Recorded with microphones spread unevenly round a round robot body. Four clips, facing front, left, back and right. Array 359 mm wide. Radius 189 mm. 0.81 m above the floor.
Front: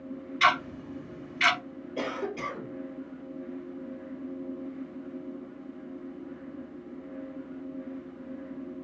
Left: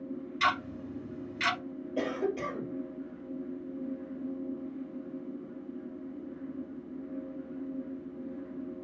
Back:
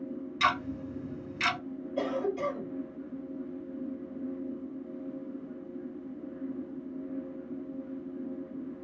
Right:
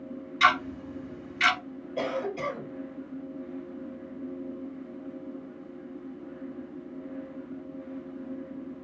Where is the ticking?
175° left, 1.4 m.